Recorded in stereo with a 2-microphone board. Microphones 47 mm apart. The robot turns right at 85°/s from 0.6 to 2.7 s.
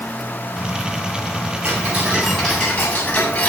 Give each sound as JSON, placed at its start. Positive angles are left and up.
{"t": 1.6, "sound": "ticking", "azimuth_deg": -60, "distance_m": 7.0}